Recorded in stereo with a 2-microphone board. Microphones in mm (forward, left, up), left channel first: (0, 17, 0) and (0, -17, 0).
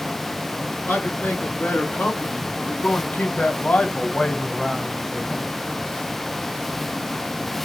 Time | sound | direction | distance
0.9 | a man speaking | 75° left (ahead or behind) | 3 m